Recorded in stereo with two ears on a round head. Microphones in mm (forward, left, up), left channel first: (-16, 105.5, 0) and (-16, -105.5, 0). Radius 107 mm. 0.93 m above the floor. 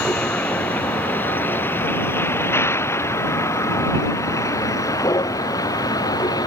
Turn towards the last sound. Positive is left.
turn(degrees=15)  # may be behind; listen again after turning